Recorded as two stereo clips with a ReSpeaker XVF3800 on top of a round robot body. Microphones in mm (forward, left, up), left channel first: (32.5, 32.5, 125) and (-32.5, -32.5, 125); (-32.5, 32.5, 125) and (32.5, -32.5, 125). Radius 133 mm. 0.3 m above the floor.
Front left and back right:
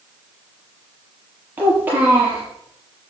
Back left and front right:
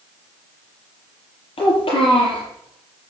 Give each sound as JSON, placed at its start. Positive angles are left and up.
{"t": 1.6, "sound": "a child speaking", "azimuth_deg": 155, "distance_m": 6.5}